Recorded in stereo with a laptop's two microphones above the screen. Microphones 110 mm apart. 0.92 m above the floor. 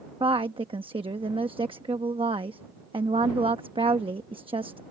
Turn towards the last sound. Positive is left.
turn(degrees=-55)  # may be behind; listen again after turning